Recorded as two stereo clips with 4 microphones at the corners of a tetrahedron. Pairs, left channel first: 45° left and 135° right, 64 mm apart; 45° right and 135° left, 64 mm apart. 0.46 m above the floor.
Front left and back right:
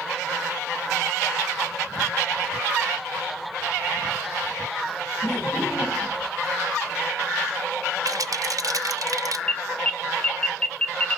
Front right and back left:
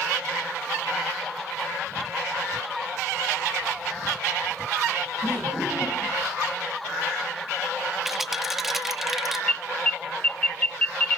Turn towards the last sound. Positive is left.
turn(degrees=-10)